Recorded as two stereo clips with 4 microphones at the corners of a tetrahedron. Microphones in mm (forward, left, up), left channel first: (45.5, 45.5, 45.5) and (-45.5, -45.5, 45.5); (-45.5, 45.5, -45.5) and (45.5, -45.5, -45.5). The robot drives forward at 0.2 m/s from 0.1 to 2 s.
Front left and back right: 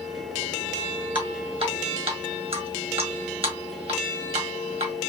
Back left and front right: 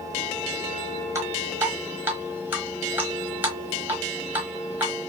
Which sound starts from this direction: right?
Dripping, at 1.1 s.